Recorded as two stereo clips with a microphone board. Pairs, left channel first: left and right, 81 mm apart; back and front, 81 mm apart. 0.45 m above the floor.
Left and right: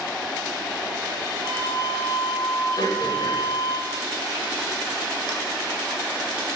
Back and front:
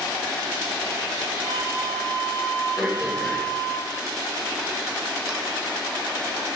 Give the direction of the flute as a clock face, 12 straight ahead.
11 o'clock.